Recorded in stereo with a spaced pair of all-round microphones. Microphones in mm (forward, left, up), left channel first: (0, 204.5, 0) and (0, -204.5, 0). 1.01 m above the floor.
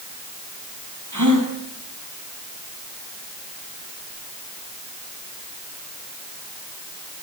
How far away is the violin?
I don't hear a violin.